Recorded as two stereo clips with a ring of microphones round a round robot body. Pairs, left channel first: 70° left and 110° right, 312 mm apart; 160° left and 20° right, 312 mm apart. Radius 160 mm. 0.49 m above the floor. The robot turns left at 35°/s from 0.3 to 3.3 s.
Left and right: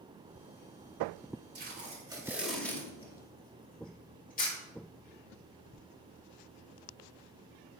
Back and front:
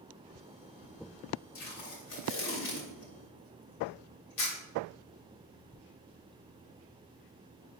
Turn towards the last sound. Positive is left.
turn(degrees=130)